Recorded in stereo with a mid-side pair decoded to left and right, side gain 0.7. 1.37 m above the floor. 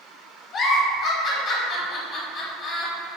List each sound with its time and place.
0.5 s a giggle: 45° left, 1.0 m